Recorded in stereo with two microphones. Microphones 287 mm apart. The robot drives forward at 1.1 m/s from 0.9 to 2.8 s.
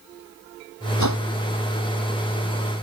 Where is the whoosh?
70° left (ahead or behind).